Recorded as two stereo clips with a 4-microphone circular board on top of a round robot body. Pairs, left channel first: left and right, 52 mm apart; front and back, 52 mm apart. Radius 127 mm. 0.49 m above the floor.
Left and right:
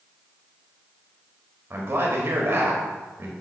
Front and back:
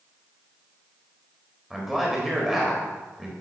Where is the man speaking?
90° right, 1.4 m.